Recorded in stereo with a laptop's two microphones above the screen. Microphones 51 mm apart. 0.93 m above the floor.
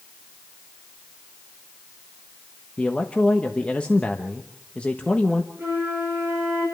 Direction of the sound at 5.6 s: 10° right (ahead or behind).